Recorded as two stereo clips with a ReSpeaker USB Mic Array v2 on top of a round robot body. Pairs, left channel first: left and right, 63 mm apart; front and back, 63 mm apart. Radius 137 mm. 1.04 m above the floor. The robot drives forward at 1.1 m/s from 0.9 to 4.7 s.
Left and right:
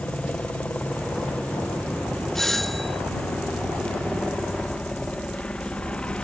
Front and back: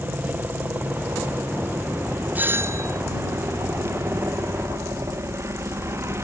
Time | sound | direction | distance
0.0 | a helicopter | 145° left | ?
2.4 | a doorbell | 170° left | ?